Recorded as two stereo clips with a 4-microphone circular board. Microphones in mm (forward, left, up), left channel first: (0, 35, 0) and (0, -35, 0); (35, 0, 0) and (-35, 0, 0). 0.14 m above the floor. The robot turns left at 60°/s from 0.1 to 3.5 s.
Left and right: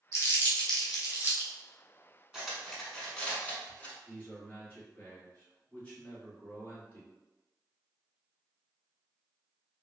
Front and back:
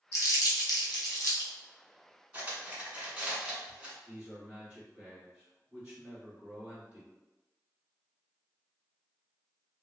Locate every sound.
0.1 s crumpling: 40° left, 1.0 m; by 1.5 s 40° right, 1.0 m
2.3 s cutlery clinking: 160° right, 0.8 m; by 4.0 s 130° left, 0.8 m
4.0 s a man speaking: 140° left, 1.9 m